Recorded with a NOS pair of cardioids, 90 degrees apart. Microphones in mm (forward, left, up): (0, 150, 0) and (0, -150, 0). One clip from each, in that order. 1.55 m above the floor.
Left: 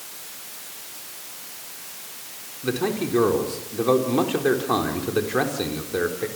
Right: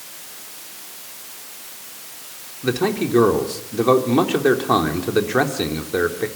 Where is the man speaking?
30° right, 3.5 m.